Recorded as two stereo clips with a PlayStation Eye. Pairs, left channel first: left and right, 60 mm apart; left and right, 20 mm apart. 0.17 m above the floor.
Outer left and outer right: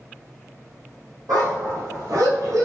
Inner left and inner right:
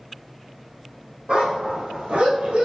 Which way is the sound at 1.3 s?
80° right.